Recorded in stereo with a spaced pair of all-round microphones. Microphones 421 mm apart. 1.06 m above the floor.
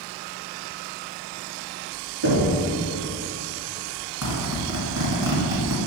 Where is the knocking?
80° right, 2 m.